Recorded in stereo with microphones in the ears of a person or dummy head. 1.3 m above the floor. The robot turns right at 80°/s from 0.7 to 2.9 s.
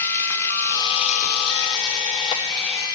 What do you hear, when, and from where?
0.0 s running water: 15° left, 1.3 m; by 3.0 s 165° right, 1.3 m